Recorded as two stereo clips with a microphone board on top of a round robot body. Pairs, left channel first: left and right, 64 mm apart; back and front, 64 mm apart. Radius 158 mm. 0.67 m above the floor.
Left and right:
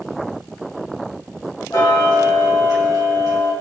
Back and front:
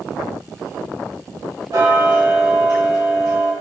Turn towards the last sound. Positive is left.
turn(degrees=45)